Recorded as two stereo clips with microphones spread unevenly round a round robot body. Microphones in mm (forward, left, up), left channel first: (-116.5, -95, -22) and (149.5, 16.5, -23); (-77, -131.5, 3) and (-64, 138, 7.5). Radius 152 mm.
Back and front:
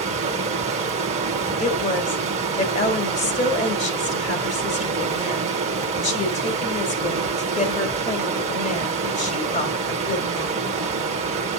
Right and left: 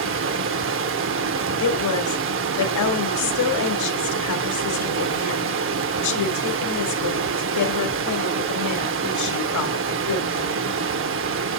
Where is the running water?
85° left, 0.8 m.